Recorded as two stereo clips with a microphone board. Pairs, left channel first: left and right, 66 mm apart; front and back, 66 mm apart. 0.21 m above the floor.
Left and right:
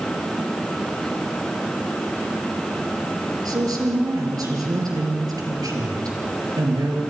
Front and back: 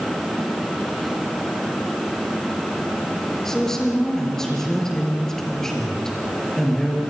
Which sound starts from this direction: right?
A woman speaking, at 3.5 s.